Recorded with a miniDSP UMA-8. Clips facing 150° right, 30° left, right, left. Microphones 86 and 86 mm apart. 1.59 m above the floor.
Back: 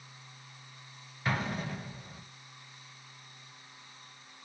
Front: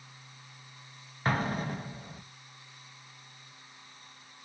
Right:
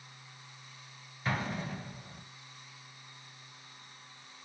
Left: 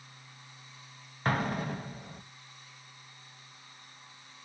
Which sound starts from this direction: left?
An explosion, at 1.2 s.